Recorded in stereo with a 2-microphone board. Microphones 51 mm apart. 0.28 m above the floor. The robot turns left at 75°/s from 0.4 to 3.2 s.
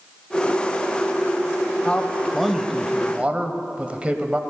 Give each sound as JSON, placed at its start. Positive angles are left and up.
{"t": 1.9, "sound": "a man speaking", "azimuth_deg": 45, "distance_m": 1.0}